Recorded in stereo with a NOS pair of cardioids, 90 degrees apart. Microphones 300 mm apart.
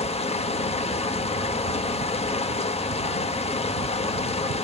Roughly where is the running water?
Ahead.